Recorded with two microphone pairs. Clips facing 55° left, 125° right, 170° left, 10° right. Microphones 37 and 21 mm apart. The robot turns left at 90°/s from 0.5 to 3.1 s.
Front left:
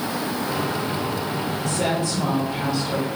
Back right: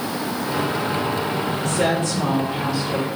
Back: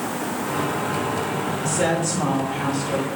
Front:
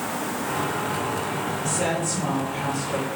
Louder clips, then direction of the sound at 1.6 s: Back right 3 dB, back 4 dB; 110° right.